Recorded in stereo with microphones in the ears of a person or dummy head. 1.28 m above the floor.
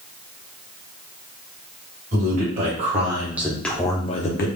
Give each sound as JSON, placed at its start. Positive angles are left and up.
{"t": 2.1, "sound": "a man speaking", "side_deg": -45, "distance_m": 1.3}